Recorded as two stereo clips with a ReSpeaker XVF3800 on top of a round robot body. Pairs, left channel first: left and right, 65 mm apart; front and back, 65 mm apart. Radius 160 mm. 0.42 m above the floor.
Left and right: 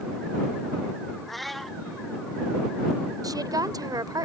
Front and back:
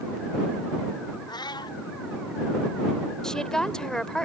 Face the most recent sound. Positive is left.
turn(degrees=-80)